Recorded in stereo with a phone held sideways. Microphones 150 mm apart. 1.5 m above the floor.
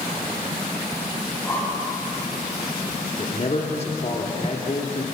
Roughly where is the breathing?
Centre.